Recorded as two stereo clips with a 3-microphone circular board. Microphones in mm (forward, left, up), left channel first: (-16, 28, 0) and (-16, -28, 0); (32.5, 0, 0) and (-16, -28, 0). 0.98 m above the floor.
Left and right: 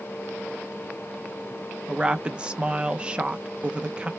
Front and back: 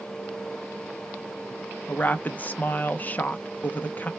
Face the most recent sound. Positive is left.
turn(degrees=-20)